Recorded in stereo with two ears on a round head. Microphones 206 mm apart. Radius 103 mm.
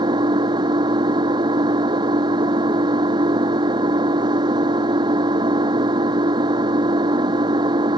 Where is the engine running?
20° right (ahead or behind).